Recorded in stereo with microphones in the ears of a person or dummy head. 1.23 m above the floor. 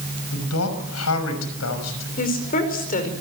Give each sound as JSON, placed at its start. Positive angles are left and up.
{"t": 0.3, "sound": "a man speaking", "side_deg": 85, "distance_m": 6.0}
{"t": 2.2, "sound": "a woman speaking", "side_deg": 40, "distance_m": 5.0}